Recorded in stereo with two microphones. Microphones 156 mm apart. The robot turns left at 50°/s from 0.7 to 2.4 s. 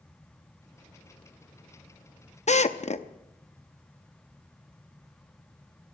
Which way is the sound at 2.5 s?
50° left (ahead or behind).